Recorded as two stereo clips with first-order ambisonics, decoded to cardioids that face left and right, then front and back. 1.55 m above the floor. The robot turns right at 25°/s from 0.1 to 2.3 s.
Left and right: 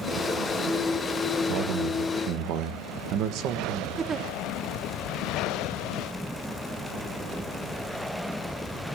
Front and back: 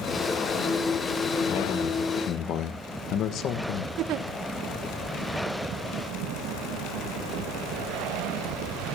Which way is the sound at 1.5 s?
70° right.